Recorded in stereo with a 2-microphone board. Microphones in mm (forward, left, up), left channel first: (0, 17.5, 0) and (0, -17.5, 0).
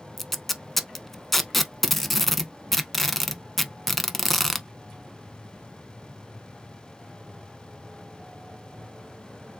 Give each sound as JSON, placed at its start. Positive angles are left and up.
{"t": 0.2, "sound": "tape being pulled", "side_deg": 0, "distance_m": 0.5}